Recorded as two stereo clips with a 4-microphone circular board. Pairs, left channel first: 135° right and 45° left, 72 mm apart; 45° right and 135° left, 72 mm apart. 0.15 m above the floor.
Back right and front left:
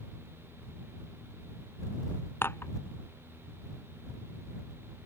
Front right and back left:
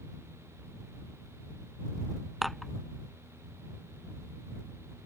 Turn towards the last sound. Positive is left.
turn(degrees=-135)